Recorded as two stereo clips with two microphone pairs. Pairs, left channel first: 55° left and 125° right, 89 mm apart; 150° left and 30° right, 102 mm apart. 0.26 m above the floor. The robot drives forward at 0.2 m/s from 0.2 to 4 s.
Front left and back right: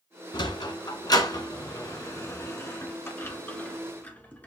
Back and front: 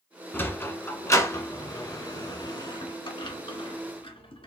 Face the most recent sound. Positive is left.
turn(degrees=125)